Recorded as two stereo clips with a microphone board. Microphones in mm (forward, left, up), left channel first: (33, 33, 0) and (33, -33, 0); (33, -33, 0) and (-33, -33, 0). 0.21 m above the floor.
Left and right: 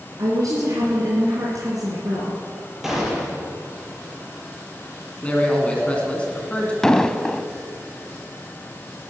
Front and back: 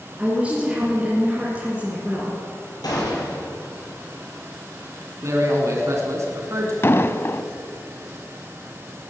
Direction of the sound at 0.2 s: 110° right.